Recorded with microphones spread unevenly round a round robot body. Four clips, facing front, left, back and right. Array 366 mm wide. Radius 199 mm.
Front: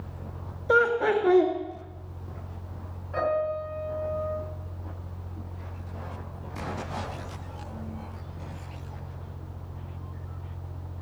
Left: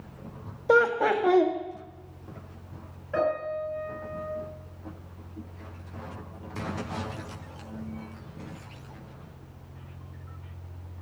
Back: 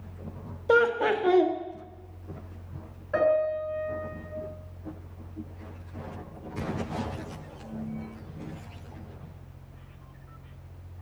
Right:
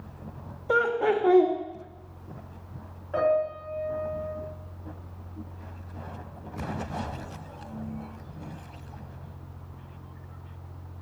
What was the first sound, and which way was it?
Laughter, 100° left.